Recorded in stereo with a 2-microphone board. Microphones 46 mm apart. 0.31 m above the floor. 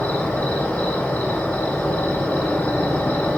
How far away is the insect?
About 2 m.